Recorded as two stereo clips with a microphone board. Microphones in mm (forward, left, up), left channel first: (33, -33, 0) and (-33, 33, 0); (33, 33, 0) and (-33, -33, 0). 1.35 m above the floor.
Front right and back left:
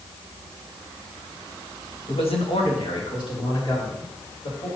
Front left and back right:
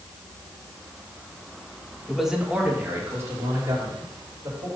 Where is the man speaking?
45° right, 1.5 m; by 4.7 s 85° right, 4 m.